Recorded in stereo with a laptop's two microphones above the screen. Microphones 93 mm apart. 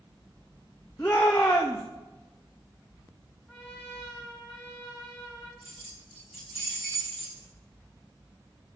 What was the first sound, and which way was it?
A shout, 35° left (ahead or behind).